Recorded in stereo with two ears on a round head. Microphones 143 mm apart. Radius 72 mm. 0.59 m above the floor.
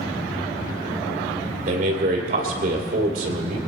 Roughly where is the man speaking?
Right.